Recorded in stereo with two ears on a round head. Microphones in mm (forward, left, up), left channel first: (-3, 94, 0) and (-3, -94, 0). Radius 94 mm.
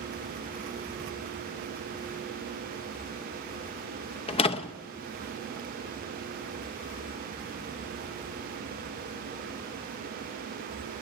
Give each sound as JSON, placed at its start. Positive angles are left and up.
{"t": 4.3, "sound": "a door slam", "side_deg": 30, "distance_m": 0.7}